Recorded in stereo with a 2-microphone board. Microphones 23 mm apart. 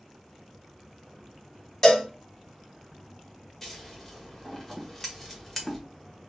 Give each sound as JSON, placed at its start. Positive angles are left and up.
{"t": 1.8, "sound": "a cowbell", "side_deg": 30, "distance_m": 1.2}
{"t": 3.6, "sound": "scissors", "side_deg": 15, "distance_m": 1.2}